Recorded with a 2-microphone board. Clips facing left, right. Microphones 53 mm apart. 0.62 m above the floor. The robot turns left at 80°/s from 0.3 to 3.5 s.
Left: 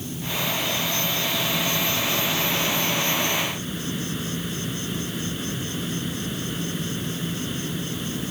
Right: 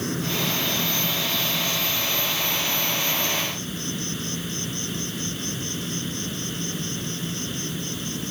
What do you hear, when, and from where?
0.0 s an insect: 100° right; by 8.3 s 5° left